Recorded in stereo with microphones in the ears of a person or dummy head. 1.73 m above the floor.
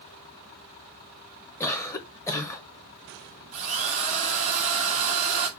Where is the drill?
40° right (ahead or behind), 2.5 m.